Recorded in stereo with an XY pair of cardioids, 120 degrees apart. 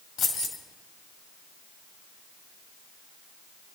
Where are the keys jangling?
60° left, 3 m.